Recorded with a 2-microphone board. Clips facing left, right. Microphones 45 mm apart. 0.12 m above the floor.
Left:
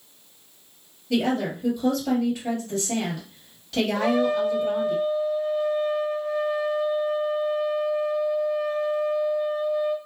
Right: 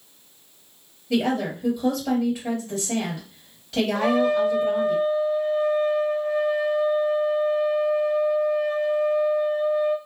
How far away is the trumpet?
About 0.9 m.